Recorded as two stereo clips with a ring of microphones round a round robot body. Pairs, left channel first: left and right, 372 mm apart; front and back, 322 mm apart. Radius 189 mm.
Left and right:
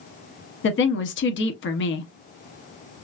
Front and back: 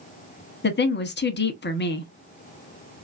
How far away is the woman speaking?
About 0.8 m.